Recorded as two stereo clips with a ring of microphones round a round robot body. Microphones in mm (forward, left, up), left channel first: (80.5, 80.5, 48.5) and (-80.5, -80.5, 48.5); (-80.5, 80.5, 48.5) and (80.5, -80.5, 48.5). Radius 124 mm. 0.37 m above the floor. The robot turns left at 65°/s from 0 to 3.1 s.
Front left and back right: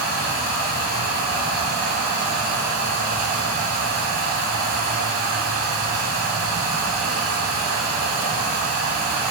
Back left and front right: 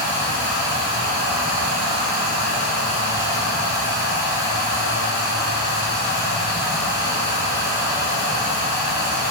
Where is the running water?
80° left, 0.8 m; by 9.3 s 120° right, 0.8 m.